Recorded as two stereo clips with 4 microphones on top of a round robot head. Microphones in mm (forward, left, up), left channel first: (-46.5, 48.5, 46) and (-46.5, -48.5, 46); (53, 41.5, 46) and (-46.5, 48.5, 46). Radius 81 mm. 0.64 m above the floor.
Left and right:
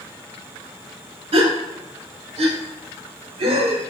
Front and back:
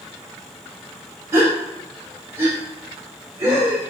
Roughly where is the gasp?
Behind right.